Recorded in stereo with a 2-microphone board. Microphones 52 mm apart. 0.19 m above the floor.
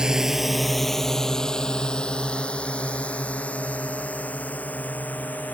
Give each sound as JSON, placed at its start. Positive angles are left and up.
{"t": 0.0, "sound": "a drone", "side_deg": -15}